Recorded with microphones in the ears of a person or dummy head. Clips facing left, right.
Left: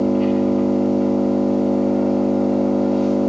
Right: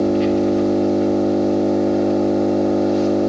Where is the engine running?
25° right (ahead or behind), 3 m.